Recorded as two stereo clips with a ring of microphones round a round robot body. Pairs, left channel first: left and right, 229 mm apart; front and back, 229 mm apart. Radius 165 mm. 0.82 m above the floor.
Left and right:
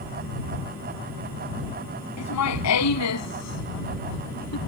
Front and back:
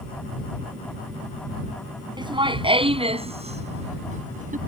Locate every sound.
2.2 s laughter: 110° left; by 4.6 s 125° left